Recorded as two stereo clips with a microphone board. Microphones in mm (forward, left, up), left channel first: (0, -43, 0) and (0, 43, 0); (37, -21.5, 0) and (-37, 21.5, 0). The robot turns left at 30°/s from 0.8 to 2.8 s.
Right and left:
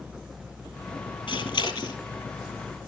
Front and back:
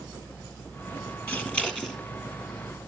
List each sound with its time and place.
1.3 s scissors: 95° right, 3.5 m; by 2.0 s 115° right, 3.5 m